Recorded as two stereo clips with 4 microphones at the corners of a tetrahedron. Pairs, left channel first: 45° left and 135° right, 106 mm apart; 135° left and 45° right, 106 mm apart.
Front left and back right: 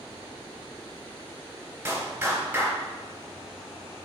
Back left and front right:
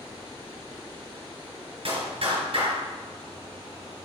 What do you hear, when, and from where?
1.9 s a clap: 65° right, 3 m